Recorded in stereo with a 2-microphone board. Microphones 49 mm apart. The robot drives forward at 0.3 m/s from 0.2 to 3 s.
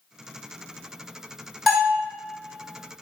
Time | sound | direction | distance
1.7 | a bell | 5° right (ahead or behind) | 1.3 m